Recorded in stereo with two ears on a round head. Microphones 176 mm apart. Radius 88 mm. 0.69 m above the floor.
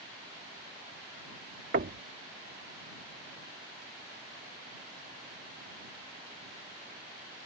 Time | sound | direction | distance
1.7 | knocking | 45° right (ahead or behind) | ?